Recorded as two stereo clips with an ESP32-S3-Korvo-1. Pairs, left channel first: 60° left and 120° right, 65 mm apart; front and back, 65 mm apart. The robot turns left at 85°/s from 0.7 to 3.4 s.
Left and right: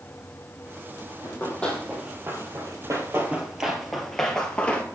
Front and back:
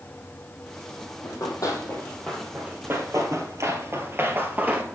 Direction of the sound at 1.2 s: 25° left.